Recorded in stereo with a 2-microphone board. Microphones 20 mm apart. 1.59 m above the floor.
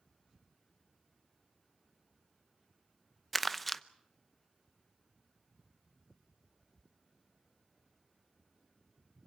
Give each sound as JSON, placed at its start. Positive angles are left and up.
{"t": 3.3, "sound": "crumpling", "side_deg": 5, "distance_m": 0.7}